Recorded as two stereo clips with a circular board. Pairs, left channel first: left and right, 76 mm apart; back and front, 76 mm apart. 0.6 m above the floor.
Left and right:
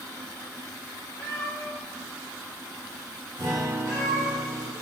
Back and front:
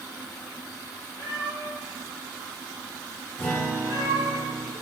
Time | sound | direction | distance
1.2 | a cat meowing | 140° left | 1.4 m
3.4 | a guitar | 115° right | 0.8 m